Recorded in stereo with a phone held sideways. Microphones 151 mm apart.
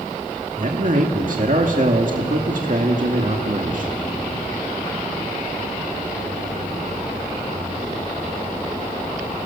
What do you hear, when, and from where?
0.6 s a man speaking: 60° right (ahead or behind), 2 m